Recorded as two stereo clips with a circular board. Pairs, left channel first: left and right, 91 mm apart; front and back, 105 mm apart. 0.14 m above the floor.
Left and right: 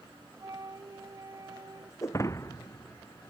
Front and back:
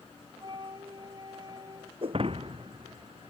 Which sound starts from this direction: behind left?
Breaking glass, at 2.0 s.